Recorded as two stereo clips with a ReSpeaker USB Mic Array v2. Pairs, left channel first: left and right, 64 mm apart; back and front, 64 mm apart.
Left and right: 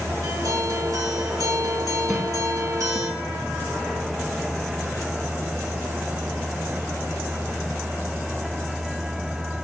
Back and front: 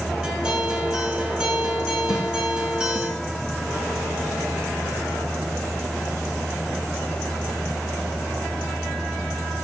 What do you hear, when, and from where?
0.2 s a guitar: 75° right, 3 m
2.1 s a snare drum: 175° right, 2.5 m